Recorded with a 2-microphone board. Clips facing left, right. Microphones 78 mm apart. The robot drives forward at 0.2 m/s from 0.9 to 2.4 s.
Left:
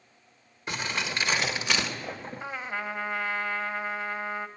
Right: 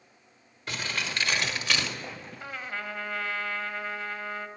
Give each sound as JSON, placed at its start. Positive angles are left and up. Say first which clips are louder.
{"t": 0.7, "sound": "crumpling", "louder": "left 2 dB", "side_deg": 20, "distance_m": 1.1}
{"t": 2.4, "sound": "a trumpet", "louder": "left 2 dB", "side_deg": 20, "distance_m": 0.5}